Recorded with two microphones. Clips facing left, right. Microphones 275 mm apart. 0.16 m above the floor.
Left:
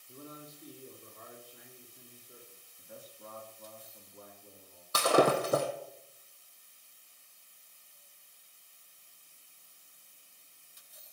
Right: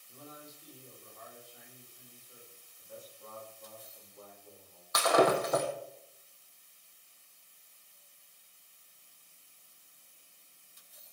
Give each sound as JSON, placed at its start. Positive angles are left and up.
{"t": 0.1, "sound": "a man speaking", "side_deg": 75, "distance_m": 6.0}
{"t": 2.8, "sound": "a man speaking", "side_deg": 80, "distance_m": 10.0}
{"t": 4.9, "sound": "breaking glass", "side_deg": 35, "distance_m": 2.5}